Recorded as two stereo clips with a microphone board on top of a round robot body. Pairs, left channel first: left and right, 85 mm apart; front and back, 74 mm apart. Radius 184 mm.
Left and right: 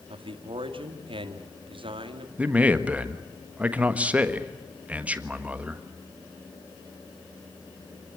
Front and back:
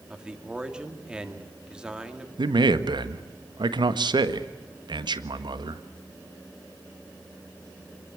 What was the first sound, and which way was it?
A man speaking, 100° right.